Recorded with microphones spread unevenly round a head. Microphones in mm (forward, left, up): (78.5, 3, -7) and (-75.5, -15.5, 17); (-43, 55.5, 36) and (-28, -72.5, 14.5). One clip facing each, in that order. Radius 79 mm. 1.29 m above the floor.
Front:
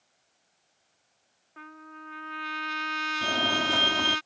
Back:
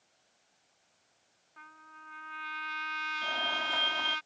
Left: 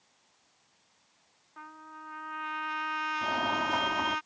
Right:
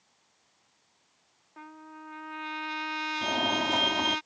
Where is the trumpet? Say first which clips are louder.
Front 10 dB, right 2 dB; 15° right.